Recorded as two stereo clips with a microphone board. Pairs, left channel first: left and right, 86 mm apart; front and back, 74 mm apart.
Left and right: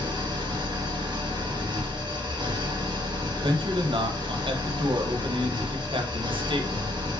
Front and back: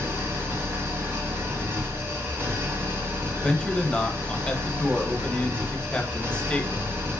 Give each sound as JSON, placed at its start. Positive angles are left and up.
{"t": 0.0, "sound": "an engine running", "azimuth_deg": -120, "distance_m": 1.7}
{"t": 3.4, "sound": "a man speaking", "azimuth_deg": -75, "distance_m": 1.3}